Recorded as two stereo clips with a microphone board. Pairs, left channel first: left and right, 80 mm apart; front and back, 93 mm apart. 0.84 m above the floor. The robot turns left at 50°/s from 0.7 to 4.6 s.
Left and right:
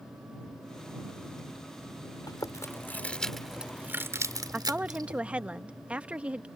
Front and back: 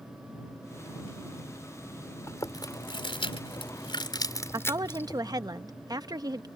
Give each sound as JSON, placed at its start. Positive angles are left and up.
{"t": 2.3, "sound": "chewing", "azimuth_deg": 55}
{"t": 4.5, "sound": "a woman speaking", "azimuth_deg": -155}